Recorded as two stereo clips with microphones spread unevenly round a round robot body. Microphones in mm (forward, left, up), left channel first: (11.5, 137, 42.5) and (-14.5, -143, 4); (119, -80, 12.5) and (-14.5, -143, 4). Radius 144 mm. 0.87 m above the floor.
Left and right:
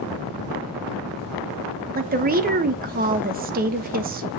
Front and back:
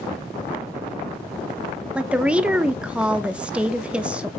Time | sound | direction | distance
1.9 | a woman speaking | 80° right | 1.0 m